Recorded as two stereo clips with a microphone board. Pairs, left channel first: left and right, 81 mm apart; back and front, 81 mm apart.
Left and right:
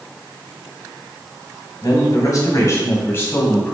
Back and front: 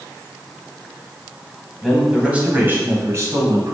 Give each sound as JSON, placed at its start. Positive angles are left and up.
{"t": 1.8, "sound": "a man speaking", "azimuth_deg": 85, "distance_m": 1.4}